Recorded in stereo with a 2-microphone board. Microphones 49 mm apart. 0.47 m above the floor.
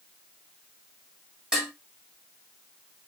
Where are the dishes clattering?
15° right (ahead or behind), 1.8 m.